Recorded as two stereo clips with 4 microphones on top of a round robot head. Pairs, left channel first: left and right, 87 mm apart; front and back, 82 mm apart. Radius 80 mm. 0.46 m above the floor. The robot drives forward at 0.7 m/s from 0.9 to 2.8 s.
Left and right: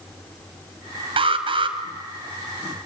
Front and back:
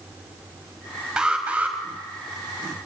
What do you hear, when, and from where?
1.2 s an alarm: 100° right, 3 m; by 1.8 s 110° right, 3 m